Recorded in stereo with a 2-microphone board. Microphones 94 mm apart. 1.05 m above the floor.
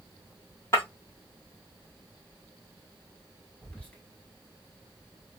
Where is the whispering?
10° left (ahead or behind), 1.4 m.